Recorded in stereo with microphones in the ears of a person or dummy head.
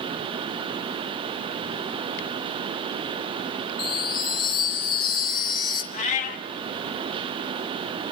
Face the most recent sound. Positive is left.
turn(degrees=45)  # may be behind; listen again after turning